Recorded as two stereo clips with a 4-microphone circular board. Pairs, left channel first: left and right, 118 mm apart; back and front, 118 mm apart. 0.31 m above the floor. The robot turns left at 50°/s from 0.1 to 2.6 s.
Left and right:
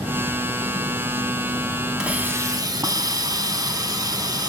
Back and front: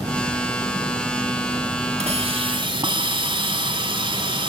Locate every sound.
2.0 s a hiss: 10° right, 2.5 m; by 4.5 s 40° right, 2.5 m